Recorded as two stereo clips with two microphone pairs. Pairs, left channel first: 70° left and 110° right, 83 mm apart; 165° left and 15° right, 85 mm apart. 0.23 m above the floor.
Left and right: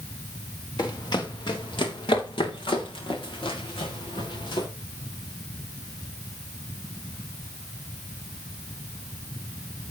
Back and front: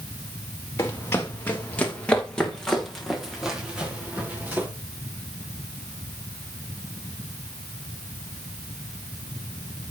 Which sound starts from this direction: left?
Running footsteps, at 0.8 s.